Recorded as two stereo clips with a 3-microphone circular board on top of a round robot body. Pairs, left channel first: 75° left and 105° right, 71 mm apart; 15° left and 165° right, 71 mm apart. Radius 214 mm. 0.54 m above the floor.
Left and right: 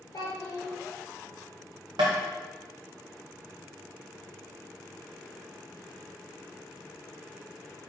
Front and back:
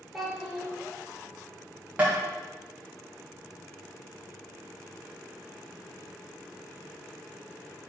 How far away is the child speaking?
About 1.5 m.